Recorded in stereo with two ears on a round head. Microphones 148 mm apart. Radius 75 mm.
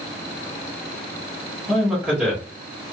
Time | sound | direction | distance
1.7 | a man speaking | 5° right (ahead or behind) | 1.5 m